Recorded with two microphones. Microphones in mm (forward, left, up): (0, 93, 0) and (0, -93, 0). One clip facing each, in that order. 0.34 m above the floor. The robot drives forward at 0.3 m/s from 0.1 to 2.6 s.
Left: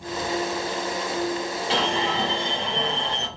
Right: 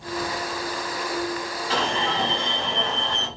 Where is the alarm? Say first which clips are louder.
Even; 25° left (ahead or behind), 1.4 m; by 3.3 s 30° left (ahead or behind), 1.3 m.